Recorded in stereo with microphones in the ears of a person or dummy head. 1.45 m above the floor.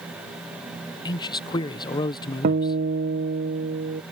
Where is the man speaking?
25° left (ahead or behind).